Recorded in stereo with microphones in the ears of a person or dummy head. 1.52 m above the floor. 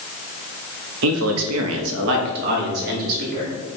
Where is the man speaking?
70° right (ahead or behind), 0.7 m; by 3.5 s 45° right (ahead or behind), 1.4 m.